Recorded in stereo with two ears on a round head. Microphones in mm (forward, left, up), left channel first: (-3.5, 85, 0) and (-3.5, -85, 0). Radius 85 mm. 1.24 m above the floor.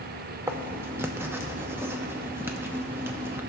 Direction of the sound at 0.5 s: 15° right (ahead or behind).